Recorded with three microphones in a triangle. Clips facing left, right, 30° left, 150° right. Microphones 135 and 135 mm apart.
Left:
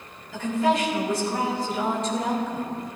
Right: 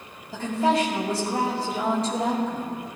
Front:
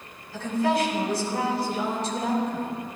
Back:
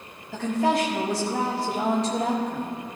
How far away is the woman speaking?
About 3.5 m.